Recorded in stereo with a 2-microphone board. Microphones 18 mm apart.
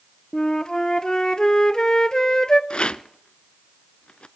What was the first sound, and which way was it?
A flute, 45° left (ahead or behind).